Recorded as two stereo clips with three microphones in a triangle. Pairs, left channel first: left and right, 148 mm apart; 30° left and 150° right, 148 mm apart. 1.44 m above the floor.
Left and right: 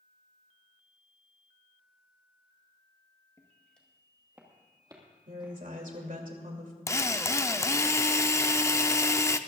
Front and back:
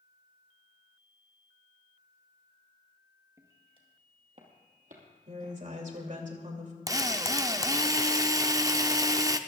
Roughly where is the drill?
Behind left.